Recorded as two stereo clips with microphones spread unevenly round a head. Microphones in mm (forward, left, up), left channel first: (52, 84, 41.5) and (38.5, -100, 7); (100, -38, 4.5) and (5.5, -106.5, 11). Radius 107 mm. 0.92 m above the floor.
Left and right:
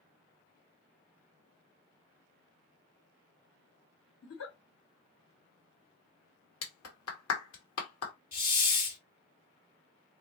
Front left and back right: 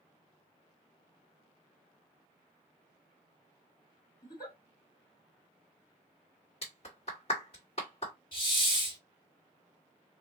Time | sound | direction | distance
4.2 | a giggle | 80° left | 2 m
6.6 | a clap | 95° left | 1.5 m
8.3 | a hiss | 80° left | 2 m